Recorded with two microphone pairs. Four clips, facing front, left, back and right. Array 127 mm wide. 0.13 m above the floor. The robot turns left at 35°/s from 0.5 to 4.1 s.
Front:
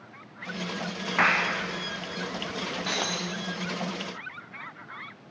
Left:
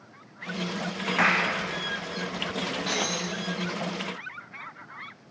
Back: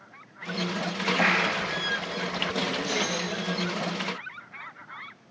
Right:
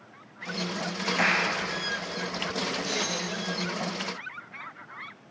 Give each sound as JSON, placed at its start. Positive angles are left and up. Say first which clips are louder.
{"t": 1.2, "sound": "a clap", "louder": "left 2 dB, front 2 dB", "azimuth_deg": 30, "distance_m": 8.0}
{"t": 2.9, "sound": "breaking glass", "louder": "left 2 dB, back 2 dB", "azimuth_deg": 35, "distance_m": 6.5}